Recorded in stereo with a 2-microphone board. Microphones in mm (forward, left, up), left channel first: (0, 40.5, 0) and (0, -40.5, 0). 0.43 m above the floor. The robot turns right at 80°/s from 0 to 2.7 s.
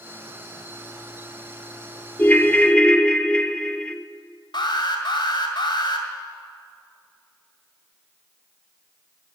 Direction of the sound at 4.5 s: 70° left (ahead or behind).